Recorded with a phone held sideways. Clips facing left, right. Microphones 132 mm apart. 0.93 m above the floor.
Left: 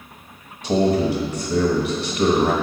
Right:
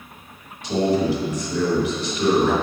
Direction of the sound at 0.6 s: 40° left (ahead or behind).